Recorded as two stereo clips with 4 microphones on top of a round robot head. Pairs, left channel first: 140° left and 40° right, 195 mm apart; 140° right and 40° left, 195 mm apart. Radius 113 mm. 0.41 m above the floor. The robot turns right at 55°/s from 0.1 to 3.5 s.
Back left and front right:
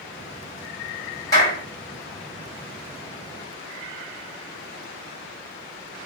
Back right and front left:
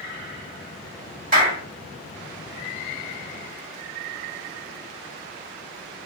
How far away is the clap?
About 1.9 m.